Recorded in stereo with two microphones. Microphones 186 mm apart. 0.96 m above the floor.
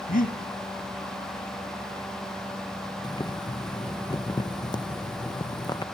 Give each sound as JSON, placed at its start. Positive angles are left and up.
{"t": 0.1, "sound": "breathing", "side_deg": 50, "distance_m": 1.8}
{"t": 3.0, "sound": "boiling", "side_deg": 20, "distance_m": 0.6}